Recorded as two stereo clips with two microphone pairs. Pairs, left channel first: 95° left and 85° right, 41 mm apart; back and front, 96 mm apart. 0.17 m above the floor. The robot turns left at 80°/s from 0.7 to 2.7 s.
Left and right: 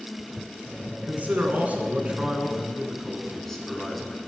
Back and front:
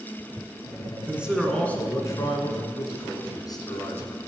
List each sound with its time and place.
1.1 s a man speaking: 60° right, 2.0 m; by 4.2 s 170° left, 2.0 m